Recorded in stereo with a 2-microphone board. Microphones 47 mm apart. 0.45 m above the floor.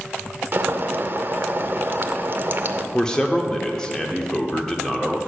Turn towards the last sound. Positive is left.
turn(degrees=15)  # may be behind; listen again after turning